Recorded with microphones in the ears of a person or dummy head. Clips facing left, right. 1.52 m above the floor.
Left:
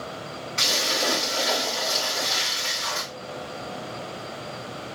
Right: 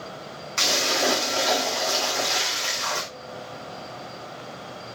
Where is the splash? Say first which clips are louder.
Right 4 dB; 65° right (ahead or behind), 1.7 m.